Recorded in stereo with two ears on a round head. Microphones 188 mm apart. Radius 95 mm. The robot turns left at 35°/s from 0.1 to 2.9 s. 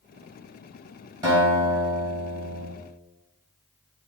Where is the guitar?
155° right, 1.9 m; by 2.7 s 155° left, 1.9 m.